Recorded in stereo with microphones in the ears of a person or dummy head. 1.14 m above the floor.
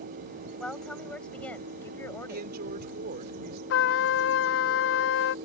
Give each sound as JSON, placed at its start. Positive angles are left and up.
{"t": 0.6, "sound": "a woman speaking", "side_deg": 0}
{"t": 2.3, "sound": "a woman speaking", "side_deg": -55}
{"t": 3.7, "sound": "a trumpet", "side_deg": 80}